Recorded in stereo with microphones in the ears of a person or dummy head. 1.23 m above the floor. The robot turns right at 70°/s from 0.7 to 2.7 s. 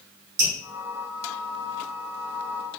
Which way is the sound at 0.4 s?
65° right (ahead or behind).